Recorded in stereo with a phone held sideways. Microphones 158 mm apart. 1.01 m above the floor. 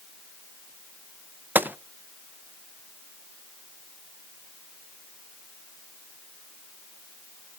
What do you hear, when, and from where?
1.6 s a gunshot: 15° right (ahead or behind), 0.6 m